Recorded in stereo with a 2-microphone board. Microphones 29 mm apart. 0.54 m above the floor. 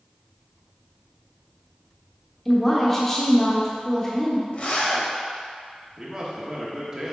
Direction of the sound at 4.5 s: 50° left (ahead or behind).